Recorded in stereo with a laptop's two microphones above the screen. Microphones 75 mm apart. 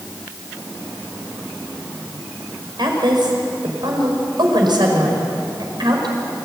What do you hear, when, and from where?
2.8 s a woman speaking: 75° right (ahead or behind), 5.5 m